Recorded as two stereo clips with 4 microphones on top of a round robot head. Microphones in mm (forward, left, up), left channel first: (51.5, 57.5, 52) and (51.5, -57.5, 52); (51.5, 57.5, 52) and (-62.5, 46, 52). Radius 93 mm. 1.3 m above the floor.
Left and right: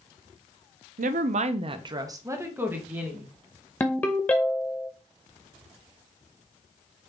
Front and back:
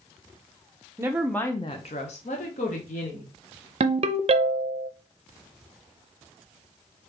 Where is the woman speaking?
105° right, 0.5 m; by 3.3 s 10° right, 1.4 m.